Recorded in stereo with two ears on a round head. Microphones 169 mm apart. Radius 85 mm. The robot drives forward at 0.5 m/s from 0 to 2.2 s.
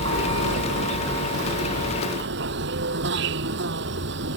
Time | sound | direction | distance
0.0 | an insect | 75° right (ahead or behind) | ?